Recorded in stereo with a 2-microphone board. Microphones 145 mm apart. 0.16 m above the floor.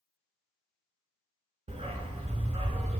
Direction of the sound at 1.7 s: 45° right (ahead or behind).